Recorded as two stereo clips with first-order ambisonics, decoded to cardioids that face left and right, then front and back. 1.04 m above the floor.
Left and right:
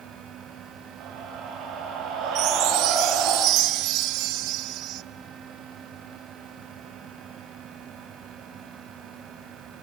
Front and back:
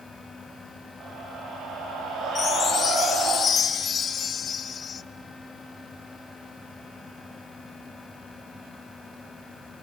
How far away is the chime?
About 0.6 m.